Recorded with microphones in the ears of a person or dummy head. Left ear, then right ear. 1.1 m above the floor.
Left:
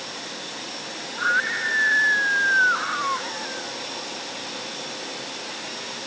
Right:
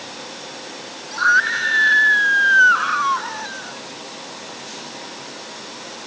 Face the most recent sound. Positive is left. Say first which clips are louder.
# right 7 dB
turn(degrees=-75)  # may be behind; listen again after turning